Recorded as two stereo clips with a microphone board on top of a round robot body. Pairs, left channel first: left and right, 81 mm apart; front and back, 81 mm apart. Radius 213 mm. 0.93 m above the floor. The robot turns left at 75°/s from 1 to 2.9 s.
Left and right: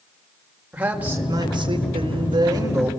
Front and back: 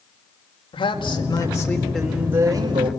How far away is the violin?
No violin in this recording.